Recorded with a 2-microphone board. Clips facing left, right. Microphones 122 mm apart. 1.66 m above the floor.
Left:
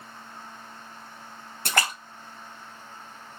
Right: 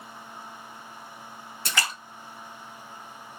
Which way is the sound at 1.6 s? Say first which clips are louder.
Left 4 dB; 50° left (ahead or behind).